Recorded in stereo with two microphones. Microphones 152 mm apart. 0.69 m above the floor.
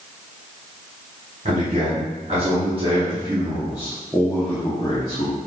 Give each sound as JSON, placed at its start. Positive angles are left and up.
{"t": 1.4, "sound": "a man speaking", "side_deg": -55, "distance_m": 1.7}